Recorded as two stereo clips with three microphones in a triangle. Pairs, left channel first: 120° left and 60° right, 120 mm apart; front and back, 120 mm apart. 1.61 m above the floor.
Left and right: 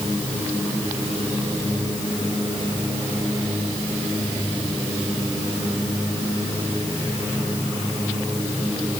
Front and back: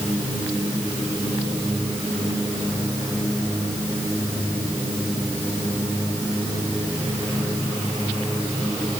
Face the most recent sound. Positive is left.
No sound to turn to.